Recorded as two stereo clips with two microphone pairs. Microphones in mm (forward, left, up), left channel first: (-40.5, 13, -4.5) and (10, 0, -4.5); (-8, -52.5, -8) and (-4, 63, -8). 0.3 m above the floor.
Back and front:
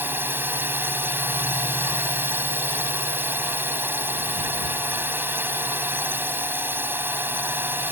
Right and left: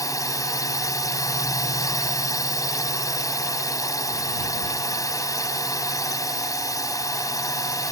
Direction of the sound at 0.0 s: 40° right.